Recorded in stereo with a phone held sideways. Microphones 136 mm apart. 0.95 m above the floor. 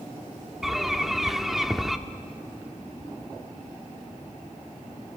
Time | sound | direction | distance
0.6 | a bird | centre (ahead or behind) | 1.0 m